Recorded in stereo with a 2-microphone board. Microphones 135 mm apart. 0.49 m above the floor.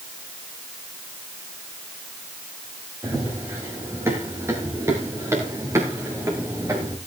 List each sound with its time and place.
3.0 s running footsteps: 20° right (ahead or behind), 9 m